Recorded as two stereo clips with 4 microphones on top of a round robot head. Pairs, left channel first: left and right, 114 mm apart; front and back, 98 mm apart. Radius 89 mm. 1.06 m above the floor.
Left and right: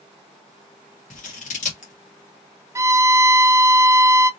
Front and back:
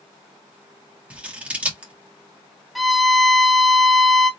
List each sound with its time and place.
1.1 s scissors: 105° left, 1.7 m
2.8 s a violin: 85° right, 0.5 m